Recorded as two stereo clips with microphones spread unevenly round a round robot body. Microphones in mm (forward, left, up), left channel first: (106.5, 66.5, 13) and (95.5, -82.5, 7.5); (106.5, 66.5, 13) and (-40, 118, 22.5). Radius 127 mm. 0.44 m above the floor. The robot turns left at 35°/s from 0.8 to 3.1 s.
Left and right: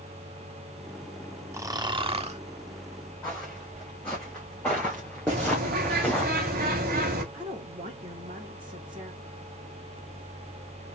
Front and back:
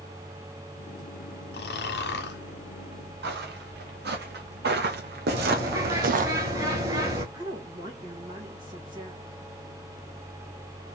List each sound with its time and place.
1.5 s snoring: 20° right, 1.0 m; by 2.4 s 50° right, 1.0 m
3.2 s footsteps: 175° left, 2.5 m; by 6.3 s 160° left, 0.6 m
5.3 s a bird: 125° right, 1.6 m
7.3 s a woman speaking: 140° right, 1.7 m